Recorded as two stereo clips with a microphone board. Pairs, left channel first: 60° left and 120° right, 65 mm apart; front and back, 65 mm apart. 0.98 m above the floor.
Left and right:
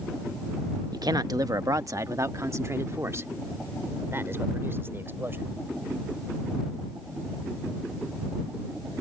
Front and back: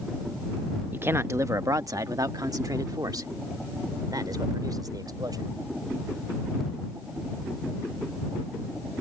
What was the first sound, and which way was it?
A man speaking, 120° right.